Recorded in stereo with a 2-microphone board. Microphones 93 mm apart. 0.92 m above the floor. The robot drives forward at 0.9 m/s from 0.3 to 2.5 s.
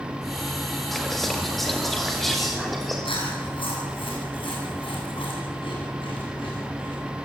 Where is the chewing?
75° left (ahead or behind), 9 m.